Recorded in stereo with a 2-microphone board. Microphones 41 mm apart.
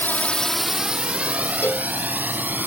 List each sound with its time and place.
0.0 s a drone: 50° left (ahead or behind); by 2.7 s 45° right (ahead or behind)
1.6 s a cowbell: 55° left (ahead or behind)